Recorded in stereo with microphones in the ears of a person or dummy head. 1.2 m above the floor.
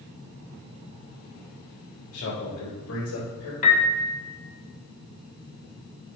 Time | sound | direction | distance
2.1 | a man speaking | 85° left | 3.5 m
3.6 | a piano | 40° left (ahead or behind) | 1.9 m